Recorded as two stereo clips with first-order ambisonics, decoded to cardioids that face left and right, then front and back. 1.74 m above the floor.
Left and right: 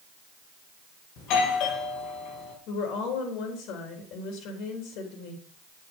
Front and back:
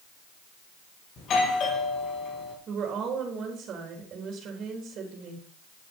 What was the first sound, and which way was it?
A doorbell, 55° left.